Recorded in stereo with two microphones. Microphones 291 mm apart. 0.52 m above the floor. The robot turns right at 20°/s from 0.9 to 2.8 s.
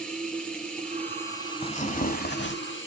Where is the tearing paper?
20° left (ahead or behind), 0.8 m; by 2.5 s 40° left (ahead or behind), 0.8 m.